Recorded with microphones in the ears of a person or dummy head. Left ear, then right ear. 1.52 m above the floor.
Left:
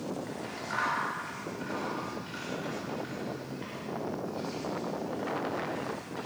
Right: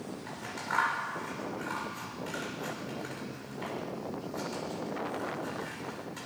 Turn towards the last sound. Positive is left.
turn(degrees=-35)  # may be behind; listen again after turning